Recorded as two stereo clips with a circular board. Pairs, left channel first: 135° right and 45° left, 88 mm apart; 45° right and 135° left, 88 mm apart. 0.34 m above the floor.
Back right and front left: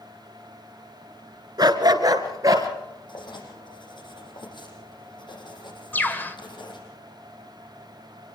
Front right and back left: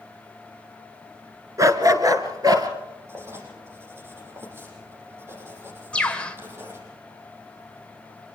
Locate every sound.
1.6 s a dog barking: 85° left, 1.7 m; by 2.7 s 95° left, 2.5 m
3.1 s writing: 160° right, 5.5 m
5.9 s a bird: 105° right, 1.6 m